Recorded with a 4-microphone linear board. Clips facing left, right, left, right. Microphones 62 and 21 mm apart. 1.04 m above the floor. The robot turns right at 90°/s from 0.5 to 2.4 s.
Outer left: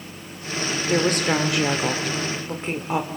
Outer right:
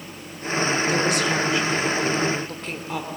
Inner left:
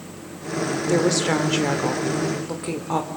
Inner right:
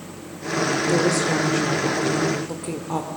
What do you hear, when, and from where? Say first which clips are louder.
0.9 s a woman speaking: outer left 1 dB, inner left 3 dB; 25° left, 4 m; by 3.1 s 160° left, 4 m